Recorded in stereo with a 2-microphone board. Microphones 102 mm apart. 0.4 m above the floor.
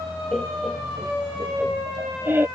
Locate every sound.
0.3 s laughter: 10° left (ahead or behind); by 2.5 s 25° right (ahead or behind)